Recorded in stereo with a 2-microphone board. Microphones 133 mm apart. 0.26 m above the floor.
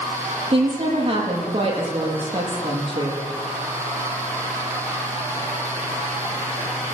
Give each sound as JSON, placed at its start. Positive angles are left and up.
{"t": 0.5, "sound": "a woman speaking", "side_deg": -40, "distance_m": 8.5}